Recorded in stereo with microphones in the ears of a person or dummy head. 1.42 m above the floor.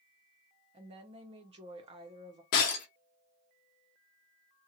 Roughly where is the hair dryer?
No hair dryer in this recording.